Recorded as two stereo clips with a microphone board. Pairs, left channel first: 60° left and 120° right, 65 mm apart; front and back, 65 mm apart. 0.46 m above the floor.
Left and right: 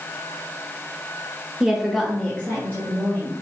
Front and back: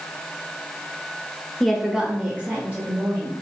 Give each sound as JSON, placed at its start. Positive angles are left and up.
{"t": 1.6, "sound": "a woman speaking", "azimuth_deg": -70, "distance_m": 0.7}